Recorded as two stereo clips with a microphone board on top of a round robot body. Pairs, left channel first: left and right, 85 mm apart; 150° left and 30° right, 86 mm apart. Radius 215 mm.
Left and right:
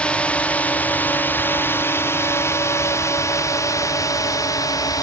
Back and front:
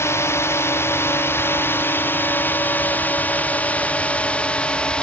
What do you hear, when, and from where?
0.0 s a drone: 155° left; by 5.0 s 75° left